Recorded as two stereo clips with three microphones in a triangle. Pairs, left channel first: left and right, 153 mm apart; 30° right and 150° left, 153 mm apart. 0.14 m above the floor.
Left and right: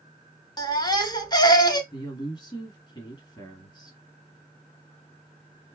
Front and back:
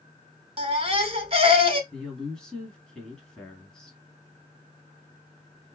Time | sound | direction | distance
0.6 | a baby crying | 135° left | 0.7 m
1.9 | a woman speaking | 50° left | 1.8 m